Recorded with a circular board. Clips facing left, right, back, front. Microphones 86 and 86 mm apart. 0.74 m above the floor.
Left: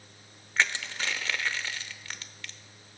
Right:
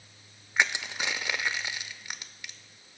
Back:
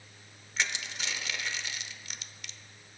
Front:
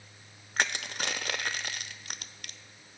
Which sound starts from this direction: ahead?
Crushing, at 0.6 s.